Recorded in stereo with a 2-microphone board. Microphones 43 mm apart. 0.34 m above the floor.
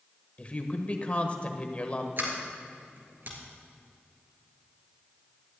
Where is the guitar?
I don't hear a guitar.